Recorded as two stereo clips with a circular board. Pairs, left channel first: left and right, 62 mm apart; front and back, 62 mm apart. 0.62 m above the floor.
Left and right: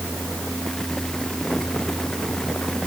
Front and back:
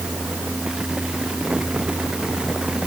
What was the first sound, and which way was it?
Only background noise.